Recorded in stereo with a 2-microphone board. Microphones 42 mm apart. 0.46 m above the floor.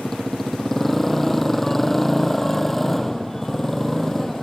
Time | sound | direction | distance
0.0 | a motorcycle | 5° left (ahead or behind) | ?